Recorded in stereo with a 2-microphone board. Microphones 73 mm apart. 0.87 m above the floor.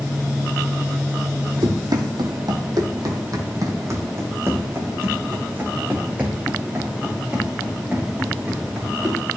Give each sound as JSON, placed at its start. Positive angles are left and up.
{"t": 1.6, "sound": "running footsteps", "side_deg": -65, "distance_m": 2.0}